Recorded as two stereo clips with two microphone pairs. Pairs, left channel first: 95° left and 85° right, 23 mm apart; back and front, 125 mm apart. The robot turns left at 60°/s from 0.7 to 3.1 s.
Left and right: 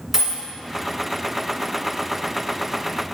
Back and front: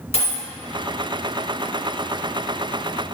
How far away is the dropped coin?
About 1.5 m.